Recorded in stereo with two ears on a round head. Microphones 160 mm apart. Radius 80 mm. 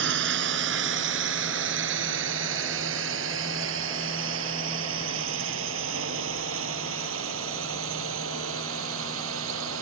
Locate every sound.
0.0 s a drone: 70° right (ahead or behind); by 9.8 s 85° right